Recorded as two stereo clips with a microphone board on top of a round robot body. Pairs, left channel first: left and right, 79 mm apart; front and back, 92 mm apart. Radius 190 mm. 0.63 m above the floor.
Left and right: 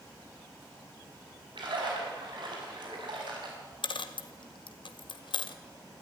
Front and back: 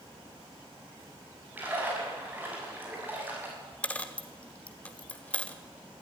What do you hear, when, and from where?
1.6 s a splash: 110° right, 6 m
3.8 s a dropped coin: 75° left, 1.1 m